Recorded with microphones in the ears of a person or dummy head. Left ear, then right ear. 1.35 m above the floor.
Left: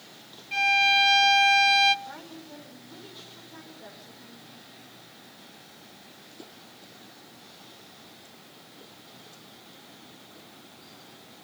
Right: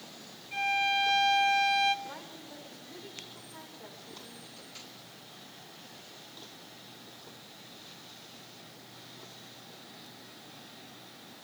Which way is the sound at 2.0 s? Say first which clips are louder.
Left 2 dB; 10° right (ahead or behind).